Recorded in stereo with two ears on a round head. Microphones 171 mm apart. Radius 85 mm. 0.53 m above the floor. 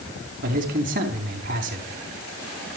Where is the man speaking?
45° right (ahead or behind), 4 m.